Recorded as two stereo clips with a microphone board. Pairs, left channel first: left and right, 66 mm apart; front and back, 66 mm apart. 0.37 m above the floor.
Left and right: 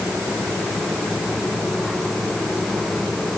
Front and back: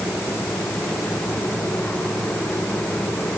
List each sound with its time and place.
Only background noise.